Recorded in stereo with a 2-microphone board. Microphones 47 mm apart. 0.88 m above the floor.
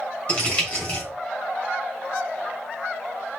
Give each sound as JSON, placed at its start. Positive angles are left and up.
{"t": 0.3, "sound": "crumpling", "side_deg": 30, "distance_m": 3.0}